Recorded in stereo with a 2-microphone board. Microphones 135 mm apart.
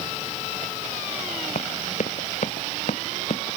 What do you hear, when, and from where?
1.6 s running footsteps: 60° left (ahead or behind); by 3.6 s 65° left (ahead or behind)